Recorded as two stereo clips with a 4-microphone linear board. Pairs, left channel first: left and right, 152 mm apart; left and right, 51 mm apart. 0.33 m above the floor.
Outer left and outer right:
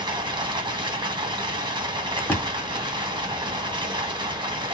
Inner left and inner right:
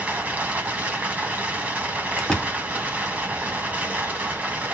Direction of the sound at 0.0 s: 30° right (ahead or behind).